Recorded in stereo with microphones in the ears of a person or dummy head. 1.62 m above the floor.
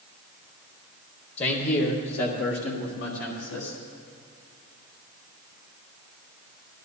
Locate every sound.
1.4 s a man speaking: 35° left (ahead or behind), 1.5 m; by 3.8 s 80° left, 3.5 m